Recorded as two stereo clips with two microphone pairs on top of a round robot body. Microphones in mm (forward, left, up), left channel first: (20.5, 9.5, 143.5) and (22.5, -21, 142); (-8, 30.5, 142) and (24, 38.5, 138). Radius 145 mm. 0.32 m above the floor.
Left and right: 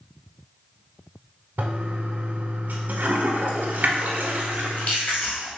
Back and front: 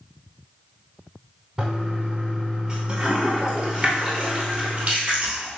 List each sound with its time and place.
1.6 s a toilet flushing: 55° right, 0.5 m
4.5 s chewing: 70° left, 2.0 m